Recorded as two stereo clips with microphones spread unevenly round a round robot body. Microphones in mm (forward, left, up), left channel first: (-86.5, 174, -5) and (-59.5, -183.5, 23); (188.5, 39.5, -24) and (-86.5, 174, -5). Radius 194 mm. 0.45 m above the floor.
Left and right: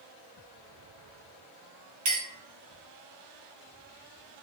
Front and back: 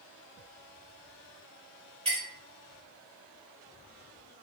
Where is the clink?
130° right, 1.7 m.